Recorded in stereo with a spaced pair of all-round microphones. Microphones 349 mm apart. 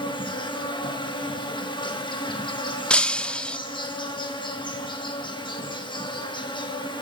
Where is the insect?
15° left (ahead or behind), 2 m.